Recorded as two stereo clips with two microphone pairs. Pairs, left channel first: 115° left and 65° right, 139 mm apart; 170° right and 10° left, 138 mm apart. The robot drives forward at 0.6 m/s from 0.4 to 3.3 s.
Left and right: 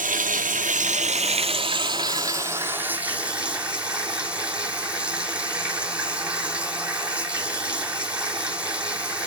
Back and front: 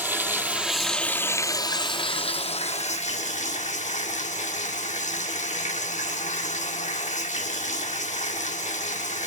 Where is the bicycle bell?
No bicycle bell in this recording.